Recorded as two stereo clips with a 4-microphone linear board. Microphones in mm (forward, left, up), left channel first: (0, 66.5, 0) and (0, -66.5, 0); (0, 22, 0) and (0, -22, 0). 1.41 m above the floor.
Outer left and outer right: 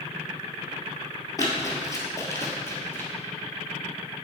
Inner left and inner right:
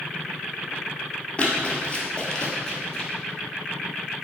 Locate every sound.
1.4 s running footsteps: 30° left (ahead or behind), 1.5 m; by 3.1 s 15° left (ahead or behind), 2.0 m